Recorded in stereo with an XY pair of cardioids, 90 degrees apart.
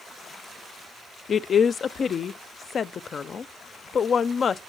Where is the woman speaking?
50° left, 0.6 m.